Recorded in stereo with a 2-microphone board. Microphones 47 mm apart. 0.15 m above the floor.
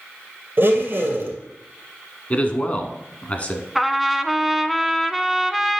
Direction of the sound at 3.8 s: 5° right (ahead or behind).